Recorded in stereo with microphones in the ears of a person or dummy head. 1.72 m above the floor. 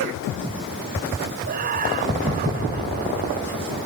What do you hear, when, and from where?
1.5 s laughter: 45° right (ahead or behind)